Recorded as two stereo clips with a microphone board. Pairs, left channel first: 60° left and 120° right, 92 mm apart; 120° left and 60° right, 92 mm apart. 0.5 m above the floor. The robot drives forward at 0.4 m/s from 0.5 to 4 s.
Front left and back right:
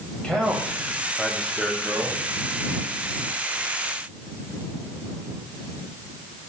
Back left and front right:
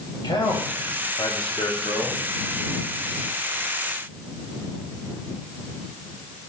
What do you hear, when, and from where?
0.2 s a man speaking: 140° left, 2.5 m; by 2.2 s 150° left, 3 m